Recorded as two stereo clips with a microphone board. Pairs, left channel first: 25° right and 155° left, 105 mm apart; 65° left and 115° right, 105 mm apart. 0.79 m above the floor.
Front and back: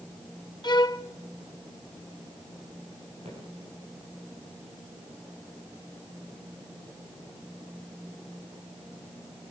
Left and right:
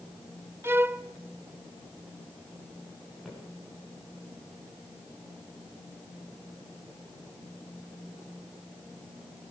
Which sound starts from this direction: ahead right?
A violin, at 0.6 s.